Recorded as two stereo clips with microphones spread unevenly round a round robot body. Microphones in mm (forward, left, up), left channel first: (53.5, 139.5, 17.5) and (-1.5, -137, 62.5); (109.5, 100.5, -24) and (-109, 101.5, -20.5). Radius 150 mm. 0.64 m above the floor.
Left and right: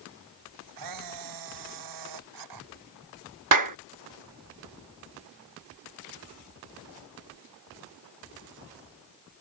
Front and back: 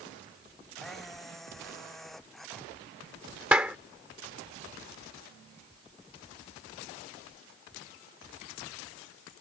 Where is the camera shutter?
90° right.